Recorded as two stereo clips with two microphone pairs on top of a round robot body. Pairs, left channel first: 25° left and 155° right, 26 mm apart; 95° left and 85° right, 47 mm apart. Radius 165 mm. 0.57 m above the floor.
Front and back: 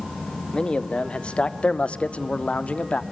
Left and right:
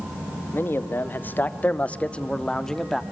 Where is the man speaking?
70° left, 2.5 m; by 3.0 s 15° left, 1.9 m.